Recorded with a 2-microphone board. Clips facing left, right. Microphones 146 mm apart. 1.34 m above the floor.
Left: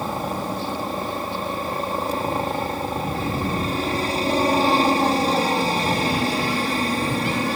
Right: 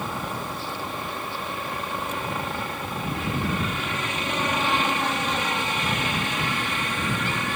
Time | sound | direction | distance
0.0 | a helicopter | 35° left (ahead or behind) | ?